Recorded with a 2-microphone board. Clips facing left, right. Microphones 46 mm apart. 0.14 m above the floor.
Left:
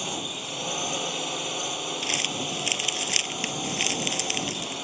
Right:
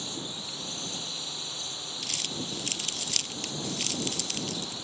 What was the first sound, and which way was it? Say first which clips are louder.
A drone: left 6 dB; 60° left (ahead or behind).